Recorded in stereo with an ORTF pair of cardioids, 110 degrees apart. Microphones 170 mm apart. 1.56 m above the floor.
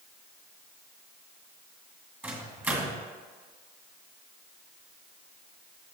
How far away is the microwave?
About 1.9 m.